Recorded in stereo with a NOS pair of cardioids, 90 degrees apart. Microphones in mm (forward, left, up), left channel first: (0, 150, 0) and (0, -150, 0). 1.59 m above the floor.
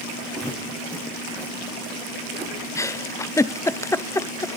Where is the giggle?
10° left, 0.5 m.